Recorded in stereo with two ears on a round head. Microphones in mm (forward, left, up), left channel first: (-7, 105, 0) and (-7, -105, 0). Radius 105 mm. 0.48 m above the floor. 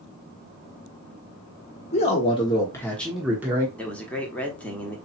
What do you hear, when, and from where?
1.9 s a man speaking: 30° left (ahead or behind), 1.4 m; by 3.7 s 15° right (ahead or behind), 1.2 m
3.8 s a man speaking: 5° left (ahead or behind), 1.1 m